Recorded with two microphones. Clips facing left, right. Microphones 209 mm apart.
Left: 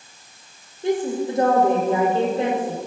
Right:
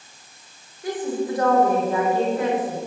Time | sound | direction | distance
0.8 | a woman speaking | 25° left (ahead or behind) | 7.5 m